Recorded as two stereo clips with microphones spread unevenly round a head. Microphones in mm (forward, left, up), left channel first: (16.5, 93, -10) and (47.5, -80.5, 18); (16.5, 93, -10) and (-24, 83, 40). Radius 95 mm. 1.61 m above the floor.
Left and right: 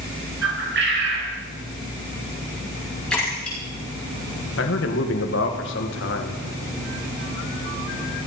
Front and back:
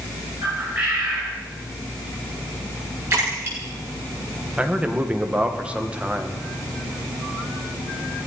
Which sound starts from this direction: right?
A bird, at 0.4 s.